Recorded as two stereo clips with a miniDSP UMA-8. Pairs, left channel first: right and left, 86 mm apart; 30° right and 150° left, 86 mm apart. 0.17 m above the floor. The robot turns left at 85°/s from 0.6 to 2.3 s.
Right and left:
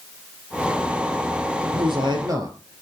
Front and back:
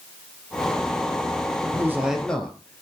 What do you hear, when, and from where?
1.6 s a man speaking: 105° left, 3 m; by 2.8 s 50° left, 3 m